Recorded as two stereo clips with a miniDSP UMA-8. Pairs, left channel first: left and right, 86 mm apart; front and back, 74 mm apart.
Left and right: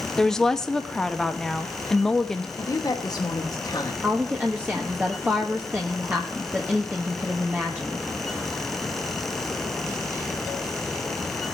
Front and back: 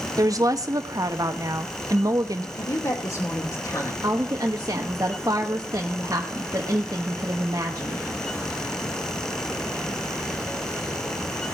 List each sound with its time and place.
0.2 s a woman speaking: 170° left, 1.2 m
2.6 s a woman speaking: 40° left, 2.5 m
4.0 s a woman speaking: 155° right, 1.4 m